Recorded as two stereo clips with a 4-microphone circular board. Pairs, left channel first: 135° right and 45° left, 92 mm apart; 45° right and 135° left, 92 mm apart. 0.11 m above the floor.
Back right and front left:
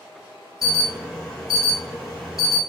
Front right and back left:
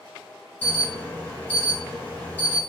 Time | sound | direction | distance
0.6 | an alarm | 40° right | 2 m